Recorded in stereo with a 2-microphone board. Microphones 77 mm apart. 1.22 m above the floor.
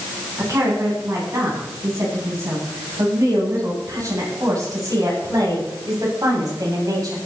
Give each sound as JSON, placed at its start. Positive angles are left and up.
{"t": 0.4, "sound": "a woman speaking", "side_deg": -45, "distance_m": 9.0}